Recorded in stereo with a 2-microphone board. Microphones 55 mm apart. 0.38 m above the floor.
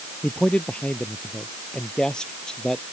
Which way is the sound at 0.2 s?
25° left (ahead or behind).